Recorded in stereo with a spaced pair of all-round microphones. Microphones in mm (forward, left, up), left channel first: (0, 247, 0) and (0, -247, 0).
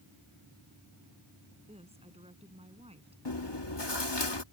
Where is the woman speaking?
10° right (ahead or behind).